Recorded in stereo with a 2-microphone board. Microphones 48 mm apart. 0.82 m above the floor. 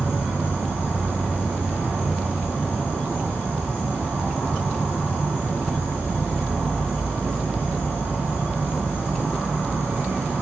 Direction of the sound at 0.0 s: 45° right (ahead or behind).